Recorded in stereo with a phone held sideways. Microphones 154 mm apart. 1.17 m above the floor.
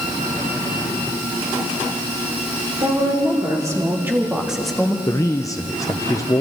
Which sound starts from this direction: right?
A woman speaking, at 2.8 s.